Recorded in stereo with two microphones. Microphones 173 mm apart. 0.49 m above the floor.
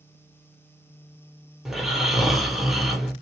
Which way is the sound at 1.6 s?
Centre (ahead or behind).